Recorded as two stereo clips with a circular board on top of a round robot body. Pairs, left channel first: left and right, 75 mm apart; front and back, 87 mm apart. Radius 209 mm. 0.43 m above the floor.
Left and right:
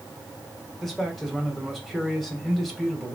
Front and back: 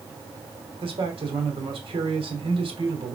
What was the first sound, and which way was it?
A man speaking, straight behind.